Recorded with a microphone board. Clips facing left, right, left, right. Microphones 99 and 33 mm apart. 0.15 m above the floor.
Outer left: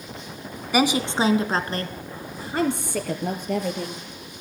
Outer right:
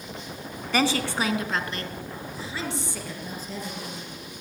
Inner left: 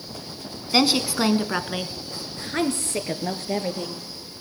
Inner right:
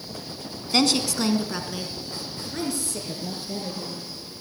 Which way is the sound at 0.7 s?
10° left (ahead or behind).